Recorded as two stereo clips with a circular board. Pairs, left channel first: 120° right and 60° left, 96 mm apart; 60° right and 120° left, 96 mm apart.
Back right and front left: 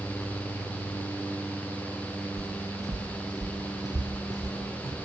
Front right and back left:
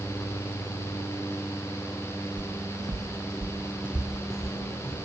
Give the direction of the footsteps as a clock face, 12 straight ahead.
8 o'clock.